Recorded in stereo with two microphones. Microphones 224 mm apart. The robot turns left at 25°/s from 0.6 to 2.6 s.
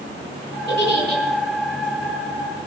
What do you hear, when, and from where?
0.7 s a giggle: 55° right (ahead or behind), 4.5 m; by 1.2 s 40° right (ahead or behind), 4.5 m